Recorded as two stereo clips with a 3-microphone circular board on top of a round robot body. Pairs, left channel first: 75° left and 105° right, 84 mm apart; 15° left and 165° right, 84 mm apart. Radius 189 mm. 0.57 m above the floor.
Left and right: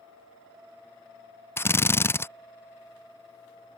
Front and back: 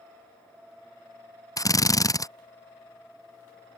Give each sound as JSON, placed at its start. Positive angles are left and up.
{"t": 1.6, "sound": "a drill", "azimuth_deg": 25}